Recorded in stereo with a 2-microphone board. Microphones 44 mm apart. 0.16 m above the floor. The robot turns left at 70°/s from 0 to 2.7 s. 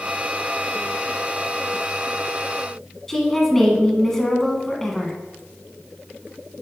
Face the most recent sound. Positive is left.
turn(degrees=10)  # may be behind; listen again after turning